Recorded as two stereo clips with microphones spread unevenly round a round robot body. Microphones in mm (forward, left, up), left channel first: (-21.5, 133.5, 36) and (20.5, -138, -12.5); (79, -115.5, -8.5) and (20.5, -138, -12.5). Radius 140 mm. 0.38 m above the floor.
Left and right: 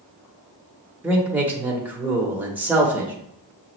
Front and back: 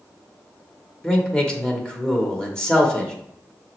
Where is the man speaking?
40° right, 0.8 m.